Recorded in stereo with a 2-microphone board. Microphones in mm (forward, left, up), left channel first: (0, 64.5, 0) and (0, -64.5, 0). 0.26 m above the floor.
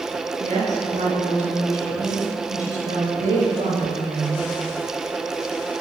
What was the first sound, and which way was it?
A woman speaking, 65° right (ahead or behind).